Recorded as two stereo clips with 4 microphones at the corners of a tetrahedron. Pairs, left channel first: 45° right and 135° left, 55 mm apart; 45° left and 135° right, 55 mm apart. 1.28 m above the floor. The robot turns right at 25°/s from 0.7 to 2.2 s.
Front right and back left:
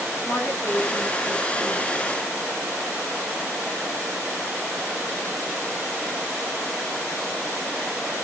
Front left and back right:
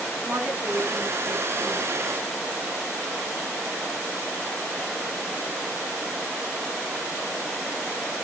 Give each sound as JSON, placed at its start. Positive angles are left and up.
{"t": 0.2, "sound": "a woman speaking", "azimuth_deg": -95, "distance_m": 8.0}